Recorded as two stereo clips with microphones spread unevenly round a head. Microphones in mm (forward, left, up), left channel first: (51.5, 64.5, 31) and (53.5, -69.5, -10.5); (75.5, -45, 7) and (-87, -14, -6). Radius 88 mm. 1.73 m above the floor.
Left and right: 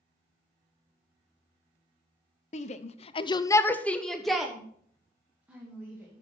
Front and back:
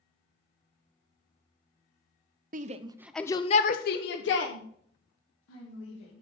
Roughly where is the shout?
Behind left.